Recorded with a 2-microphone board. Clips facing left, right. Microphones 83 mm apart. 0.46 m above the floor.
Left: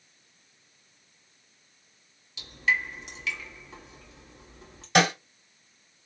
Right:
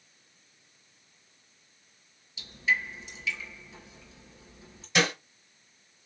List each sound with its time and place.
2.4 s dripping: 80° left, 2 m
5.0 s a snare drum: 65° left (ahead or behind), 3 m